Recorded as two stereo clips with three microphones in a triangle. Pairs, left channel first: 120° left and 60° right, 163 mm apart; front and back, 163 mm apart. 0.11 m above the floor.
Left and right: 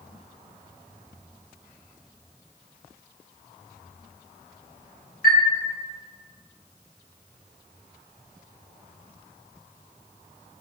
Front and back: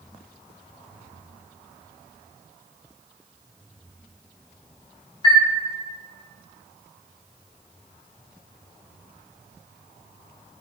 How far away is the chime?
About 0.6 m.